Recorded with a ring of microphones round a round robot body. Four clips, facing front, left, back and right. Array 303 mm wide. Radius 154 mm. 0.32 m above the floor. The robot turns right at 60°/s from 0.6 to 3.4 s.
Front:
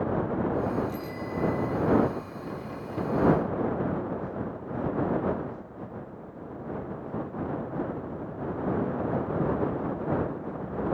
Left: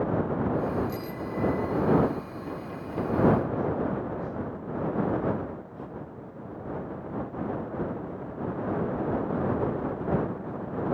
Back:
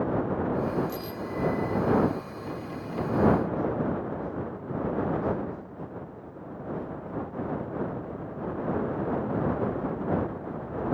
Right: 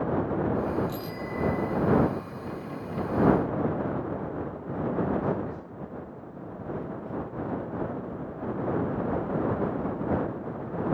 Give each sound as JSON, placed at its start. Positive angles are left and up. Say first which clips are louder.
{"t": 0.9, "sound": "a bicycle bell", "louder": "left 1 dB, even", "azimuth_deg": -160}